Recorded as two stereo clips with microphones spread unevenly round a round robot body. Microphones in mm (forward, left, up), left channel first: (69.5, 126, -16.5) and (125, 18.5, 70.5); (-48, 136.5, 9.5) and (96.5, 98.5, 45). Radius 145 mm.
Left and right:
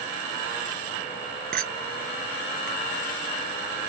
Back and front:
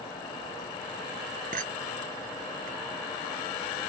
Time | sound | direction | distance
1.5 | a clink | 80° right | ?